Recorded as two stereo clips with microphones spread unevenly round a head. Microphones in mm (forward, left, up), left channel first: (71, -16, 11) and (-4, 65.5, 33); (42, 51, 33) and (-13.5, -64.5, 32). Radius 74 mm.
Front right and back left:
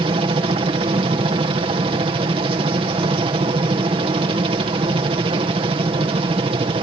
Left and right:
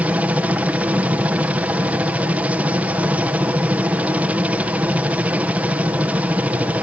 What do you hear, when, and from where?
0.0 s a helicopter: 170° left